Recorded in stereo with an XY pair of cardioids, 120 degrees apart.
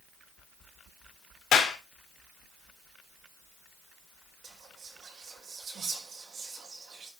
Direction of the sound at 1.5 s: 55° left.